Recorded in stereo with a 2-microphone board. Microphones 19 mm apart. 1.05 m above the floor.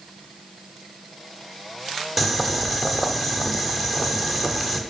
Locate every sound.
2.2 s boiling: 15° right (ahead or behind), 0.9 m